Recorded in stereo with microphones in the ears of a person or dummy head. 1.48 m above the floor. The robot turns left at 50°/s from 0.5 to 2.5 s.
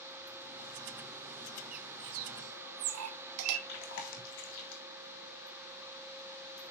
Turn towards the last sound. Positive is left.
turn(degrees=65)  # may be behind; listen again after turning